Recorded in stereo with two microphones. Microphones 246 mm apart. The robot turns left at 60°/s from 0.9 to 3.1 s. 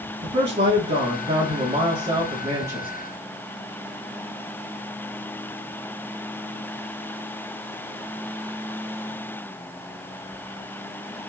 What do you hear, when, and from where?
0.2 s a man speaking: 50° right, 1.5 m; by 2.9 s 170° right, 1.5 m